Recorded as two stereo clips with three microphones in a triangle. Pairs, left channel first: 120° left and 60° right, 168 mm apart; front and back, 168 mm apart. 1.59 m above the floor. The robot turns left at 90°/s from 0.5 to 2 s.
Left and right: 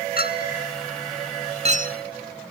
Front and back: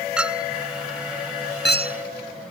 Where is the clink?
95° left; by 2.5 s 40° right.